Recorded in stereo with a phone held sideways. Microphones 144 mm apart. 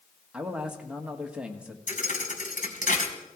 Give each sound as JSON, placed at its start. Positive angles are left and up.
{"t": 0.3, "sound": "a man speaking", "side_deg": -5, "distance_m": 1.6}
{"t": 1.9, "sound": "a thud", "side_deg": 70, "distance_m": 2.5}